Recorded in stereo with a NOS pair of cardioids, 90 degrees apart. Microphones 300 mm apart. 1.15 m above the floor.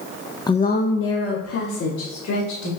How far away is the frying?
No frying in this recording.